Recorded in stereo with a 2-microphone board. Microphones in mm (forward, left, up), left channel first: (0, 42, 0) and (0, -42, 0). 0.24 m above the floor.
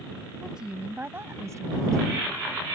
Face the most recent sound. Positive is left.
turn(degrees=-45)  # may be behind; listen again after turning